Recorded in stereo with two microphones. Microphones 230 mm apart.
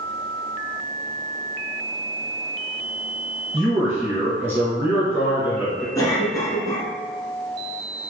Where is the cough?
15° left (ahead or behind), 1.1 m.